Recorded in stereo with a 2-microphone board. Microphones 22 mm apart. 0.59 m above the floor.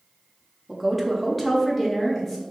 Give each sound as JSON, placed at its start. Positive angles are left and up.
{"t": 0.7, "sound": "a woman speaking", "side_deg": -10, "distance_m": 0.8}